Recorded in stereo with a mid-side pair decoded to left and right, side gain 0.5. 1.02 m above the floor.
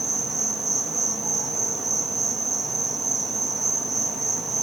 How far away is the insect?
About 0.8 m.